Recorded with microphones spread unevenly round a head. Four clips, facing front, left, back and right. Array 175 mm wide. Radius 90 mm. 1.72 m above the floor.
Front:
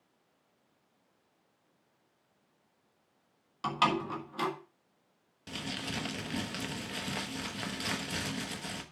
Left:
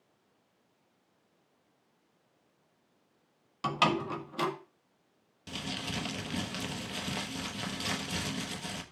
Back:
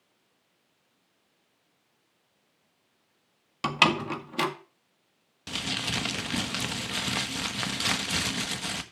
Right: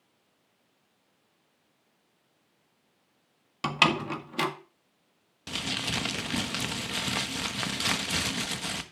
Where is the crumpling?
120° right, 1.2 m.